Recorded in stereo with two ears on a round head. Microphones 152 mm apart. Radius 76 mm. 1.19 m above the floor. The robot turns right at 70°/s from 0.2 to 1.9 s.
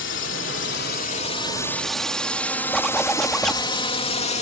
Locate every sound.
0.0 s a drone: 75° left (ahead or behind); by 4.4 s 40° left (ahead or behind)
2.7 s a zipper: 5° left (ahead or behind)